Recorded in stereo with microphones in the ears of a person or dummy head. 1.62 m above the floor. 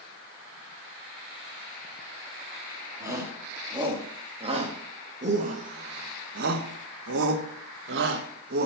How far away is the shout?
About 3 m.